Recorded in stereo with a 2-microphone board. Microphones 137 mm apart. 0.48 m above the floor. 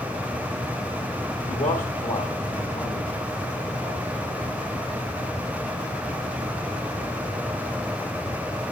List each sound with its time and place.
1.5 s a man speaking: 60° left (ahead or behind), 1.5 m; by 4.5 s 80° left, 5 m